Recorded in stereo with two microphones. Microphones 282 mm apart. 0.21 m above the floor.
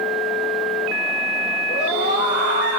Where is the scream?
30° left (ahead or behind), 5.5 m; by 2.8 s 40° left (ahead or behind), 6 m.